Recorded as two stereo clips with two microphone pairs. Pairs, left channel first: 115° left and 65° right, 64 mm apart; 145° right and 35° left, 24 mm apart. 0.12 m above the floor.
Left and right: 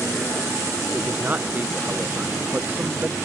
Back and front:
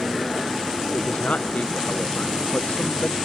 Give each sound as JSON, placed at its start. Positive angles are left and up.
{"t": 0.9, "sound": "a man speaking", "azimuth_deg": -130}